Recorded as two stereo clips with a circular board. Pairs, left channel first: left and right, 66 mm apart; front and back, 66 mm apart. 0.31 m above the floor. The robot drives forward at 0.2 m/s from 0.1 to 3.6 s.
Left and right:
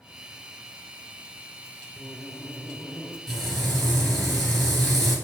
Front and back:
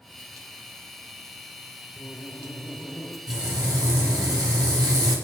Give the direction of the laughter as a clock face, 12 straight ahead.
11 o'clock.